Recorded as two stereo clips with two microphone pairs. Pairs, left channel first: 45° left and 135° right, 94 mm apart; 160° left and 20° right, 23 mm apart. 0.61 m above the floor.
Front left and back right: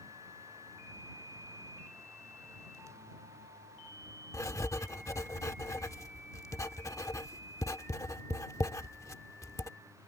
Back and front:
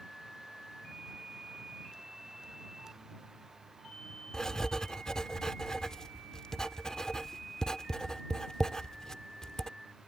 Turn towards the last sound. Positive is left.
turn(degrees=95)